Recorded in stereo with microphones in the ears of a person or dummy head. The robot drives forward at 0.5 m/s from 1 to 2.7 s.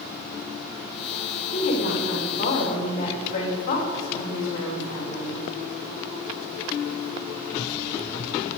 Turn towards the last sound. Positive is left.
turn(degrees=40)  # may be behind; listen again after turning